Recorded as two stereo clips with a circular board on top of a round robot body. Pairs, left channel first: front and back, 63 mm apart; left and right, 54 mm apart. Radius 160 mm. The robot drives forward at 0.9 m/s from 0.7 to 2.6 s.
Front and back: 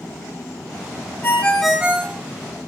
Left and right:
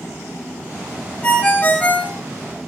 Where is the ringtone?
40° left, 0.9 m; by 2.2 s 150° left, 0.9 m.